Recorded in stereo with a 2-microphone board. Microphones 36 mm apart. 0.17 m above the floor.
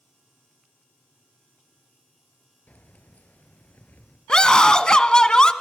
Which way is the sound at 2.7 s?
50° left (ahead or behind).